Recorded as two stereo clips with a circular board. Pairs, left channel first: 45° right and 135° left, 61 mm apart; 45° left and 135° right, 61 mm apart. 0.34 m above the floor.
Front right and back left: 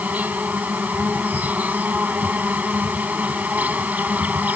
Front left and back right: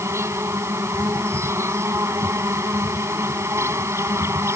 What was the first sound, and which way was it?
An insect, 165° right.